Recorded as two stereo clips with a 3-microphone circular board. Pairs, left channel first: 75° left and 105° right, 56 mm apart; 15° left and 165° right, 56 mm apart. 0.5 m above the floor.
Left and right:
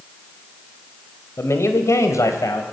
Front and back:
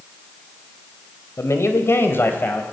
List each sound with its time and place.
1.4 s a man speaking: 40° left, 2.5 m; by 2.6 s 70° left, 3 m